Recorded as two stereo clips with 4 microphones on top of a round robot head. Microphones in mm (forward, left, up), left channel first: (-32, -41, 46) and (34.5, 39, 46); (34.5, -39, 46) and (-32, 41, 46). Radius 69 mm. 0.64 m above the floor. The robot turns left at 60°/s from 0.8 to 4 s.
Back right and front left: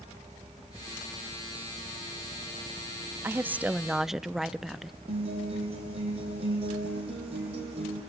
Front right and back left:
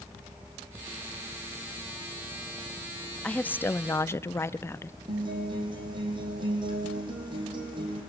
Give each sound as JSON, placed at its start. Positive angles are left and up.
{"t": 3.2, "sound": "a woman speaking", "azimuth_deg": 15, "distance_m": 0.6}
{"t": 5.1, "sound": "a guitar", "azimuth_deg": 85, "distance_m": 5.0}